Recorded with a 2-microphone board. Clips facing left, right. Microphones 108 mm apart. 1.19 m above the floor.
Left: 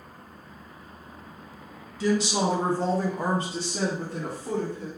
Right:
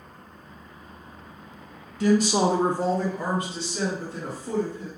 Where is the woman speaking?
55° right (ahead or behind), 0.9 m; by 4.9 s 60° left (ahead or behind), 1.7 m.